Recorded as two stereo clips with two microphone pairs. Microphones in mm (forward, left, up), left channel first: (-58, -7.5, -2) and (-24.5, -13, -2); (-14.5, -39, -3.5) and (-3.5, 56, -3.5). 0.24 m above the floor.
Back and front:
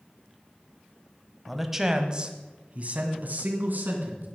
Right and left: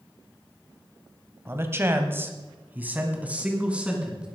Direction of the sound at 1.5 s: 90° left.